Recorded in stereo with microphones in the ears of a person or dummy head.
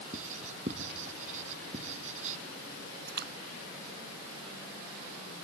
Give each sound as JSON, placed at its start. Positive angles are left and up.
{"t": 0.1, "sound": "writing", "side_deg": -45}
{"t": 3.1, "sound": "a splash", "side_deg": -50}